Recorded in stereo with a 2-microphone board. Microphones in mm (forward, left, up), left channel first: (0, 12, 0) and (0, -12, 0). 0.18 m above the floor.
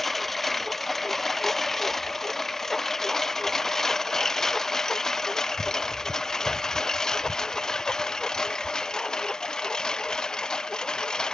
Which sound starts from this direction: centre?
A lawn mower, at 0.0 s.